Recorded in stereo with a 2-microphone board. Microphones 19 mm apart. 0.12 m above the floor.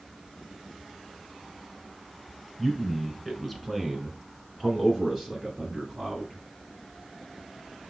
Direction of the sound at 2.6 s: Centre (ahead or behind).